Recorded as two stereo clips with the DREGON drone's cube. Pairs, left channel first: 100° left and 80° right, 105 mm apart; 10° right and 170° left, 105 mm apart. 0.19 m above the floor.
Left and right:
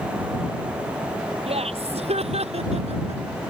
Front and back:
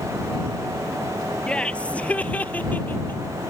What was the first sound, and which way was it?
Laughter, 90° right.